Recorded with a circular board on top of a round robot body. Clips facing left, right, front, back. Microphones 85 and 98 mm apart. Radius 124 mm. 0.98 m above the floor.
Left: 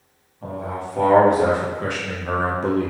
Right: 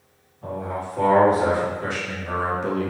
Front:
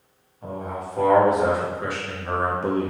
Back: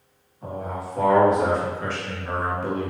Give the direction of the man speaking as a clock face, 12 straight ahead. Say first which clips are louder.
Even, even; 9 o'clock.